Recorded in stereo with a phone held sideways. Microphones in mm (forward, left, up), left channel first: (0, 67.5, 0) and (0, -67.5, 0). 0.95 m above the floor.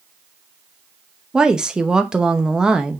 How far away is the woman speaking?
About 0.9 m.